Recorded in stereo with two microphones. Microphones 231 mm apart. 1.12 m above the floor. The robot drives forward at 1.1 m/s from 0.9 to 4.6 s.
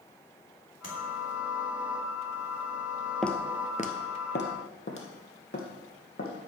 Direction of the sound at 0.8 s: 85° left.